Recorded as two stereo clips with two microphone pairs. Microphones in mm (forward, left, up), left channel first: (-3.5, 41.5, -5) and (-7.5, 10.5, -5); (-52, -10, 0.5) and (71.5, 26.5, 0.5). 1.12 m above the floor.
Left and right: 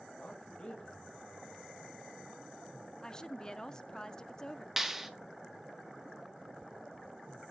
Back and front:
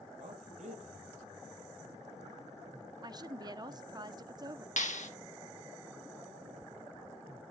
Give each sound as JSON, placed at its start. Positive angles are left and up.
{"t": 0.2, "sound": "a man speaking", "azimuth_deg": 35, "distance_m": 4.0}
{"t": 3.0, "sound": "a woman speaking", "azimuth_deg": 40, "distance_m": 0.6}
{"t": 4.8, "sound": "a clap", "azimuth_deg": 180, "distance_m": 1.1}